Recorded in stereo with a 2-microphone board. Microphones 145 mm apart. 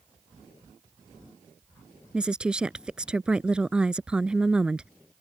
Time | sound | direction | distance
2.1 | a woman speaking | 5° right (ahead or behind) | ?